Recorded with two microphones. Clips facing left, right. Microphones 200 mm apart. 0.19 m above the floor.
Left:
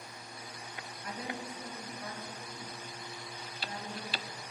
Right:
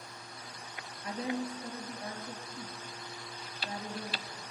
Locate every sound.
1.0 s a woman speaking: 25° right (ahead or behind), 3.5 m